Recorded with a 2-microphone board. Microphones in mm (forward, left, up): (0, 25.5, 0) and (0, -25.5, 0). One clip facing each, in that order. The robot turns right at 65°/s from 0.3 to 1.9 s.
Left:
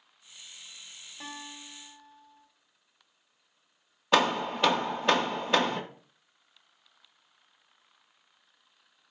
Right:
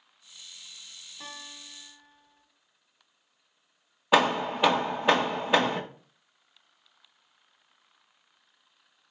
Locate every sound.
1.2 s a guitar: 135° left, 1.3 m; by 2.4 s straight behind, 1.3 m
4.1 s hammering: 10° right (ahead or behind), 0.5 m